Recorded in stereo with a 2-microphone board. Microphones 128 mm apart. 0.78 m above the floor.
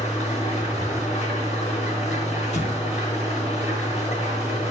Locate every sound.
0.0 s an engine running: 60° left (ahead or behind), 3 m
2.5 s an explosion: 60° left (ahead or behind), 0.9 m